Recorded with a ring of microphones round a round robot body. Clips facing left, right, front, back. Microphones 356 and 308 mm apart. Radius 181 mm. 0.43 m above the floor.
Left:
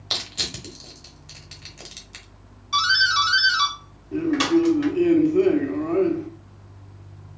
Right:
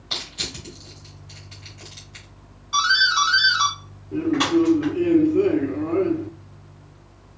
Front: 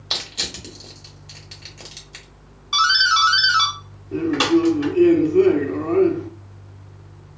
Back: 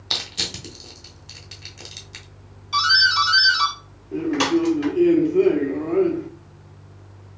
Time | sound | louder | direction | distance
0.1 | crushing | even, even | 105° left | 1.5 m
2.7 | a doorbell | right 1 dB, front 1 dB | 85° left | 3 m
4.1 | a man speaking | even, front 3 dB | 55° left | 0.8 m